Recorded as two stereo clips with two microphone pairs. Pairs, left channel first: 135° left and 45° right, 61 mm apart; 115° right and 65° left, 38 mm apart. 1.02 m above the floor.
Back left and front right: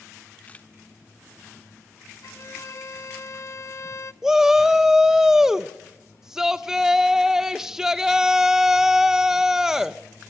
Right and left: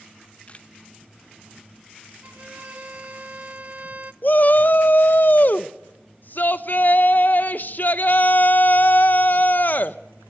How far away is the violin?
About 0.5 m.